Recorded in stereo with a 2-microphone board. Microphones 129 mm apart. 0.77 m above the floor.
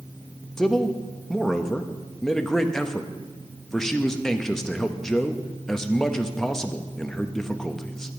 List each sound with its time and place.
0.6 s a man speaking: 5° left (ahead or behind), 0.7 m